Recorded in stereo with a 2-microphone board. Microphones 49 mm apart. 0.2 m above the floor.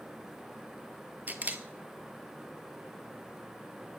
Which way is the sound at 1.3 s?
35° right (ahead or behind).